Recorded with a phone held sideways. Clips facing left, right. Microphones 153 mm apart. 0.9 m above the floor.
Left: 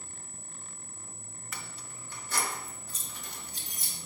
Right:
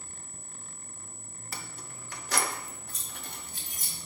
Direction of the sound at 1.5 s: 35° right (ahead or behind).